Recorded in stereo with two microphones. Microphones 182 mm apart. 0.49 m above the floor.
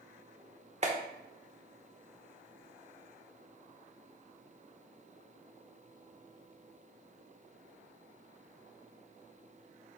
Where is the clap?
40° right (ahead or behind), 1.2 m.